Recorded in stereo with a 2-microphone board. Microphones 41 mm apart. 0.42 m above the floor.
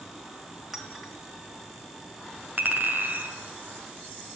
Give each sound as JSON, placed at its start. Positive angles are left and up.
{"t": 0.7, "sound": "a clink", "side_deg": -5, "distance_m": 3.5}
{"t": 2.6, "sound": "a clink", "side_deg": -45, "distance_m": 3.0}